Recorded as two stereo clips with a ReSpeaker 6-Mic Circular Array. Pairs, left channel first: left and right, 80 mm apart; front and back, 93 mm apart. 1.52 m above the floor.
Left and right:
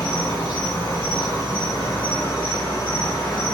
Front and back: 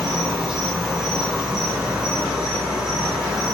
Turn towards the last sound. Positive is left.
turn(degrees=95)